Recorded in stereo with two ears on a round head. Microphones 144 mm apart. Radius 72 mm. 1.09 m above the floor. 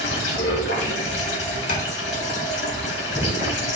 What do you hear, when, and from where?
0.0 s running water: 80° left, 4.5 m
1.7 s tapping: 50° left (ahead or behind), 2.5 m